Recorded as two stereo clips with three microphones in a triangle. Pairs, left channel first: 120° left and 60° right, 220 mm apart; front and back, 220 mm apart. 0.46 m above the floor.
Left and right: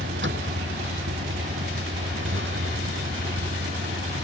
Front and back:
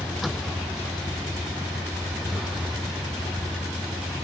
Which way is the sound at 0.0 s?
90° right.